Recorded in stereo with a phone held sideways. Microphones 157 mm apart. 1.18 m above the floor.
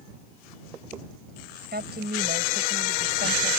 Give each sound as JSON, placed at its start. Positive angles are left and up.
{"t": 1.7, "sound": "a woman speaking", "side_deg": -85}